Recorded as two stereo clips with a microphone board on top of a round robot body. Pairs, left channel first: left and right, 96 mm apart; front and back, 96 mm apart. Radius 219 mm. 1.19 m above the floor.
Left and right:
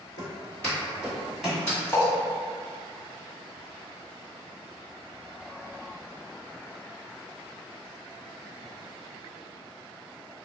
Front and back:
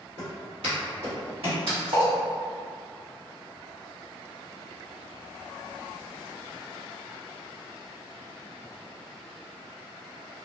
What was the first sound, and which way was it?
Footsteps, 135° left.